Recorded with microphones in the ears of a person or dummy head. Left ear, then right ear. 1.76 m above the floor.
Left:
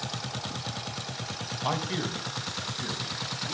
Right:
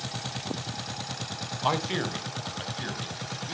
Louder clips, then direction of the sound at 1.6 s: Right 3 dB; 20° right (ahead or behind).